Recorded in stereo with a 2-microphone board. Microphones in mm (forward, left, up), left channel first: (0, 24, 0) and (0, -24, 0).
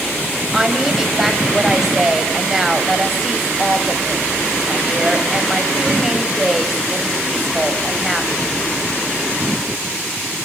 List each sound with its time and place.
0.5 s a woman speaking: 10° right (ahead or behind), 3 m